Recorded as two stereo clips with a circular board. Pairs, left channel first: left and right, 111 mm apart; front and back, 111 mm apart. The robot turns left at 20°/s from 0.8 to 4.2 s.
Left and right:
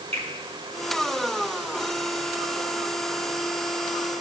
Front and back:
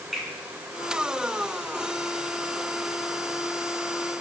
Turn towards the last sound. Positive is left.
turn(degrees=-160)